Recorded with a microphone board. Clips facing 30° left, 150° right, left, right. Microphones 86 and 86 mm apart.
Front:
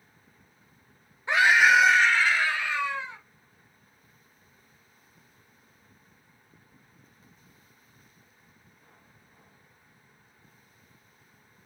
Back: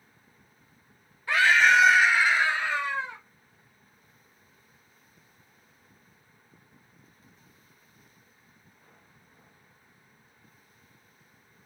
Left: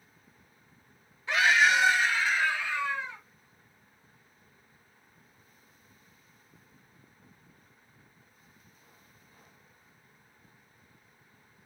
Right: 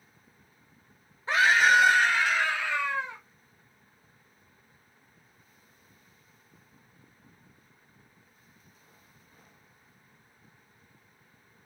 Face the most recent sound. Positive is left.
turn(degrees=-115)